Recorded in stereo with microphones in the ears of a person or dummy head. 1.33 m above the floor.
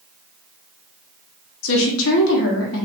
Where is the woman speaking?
75° left (ahead or behind), 0.9 m.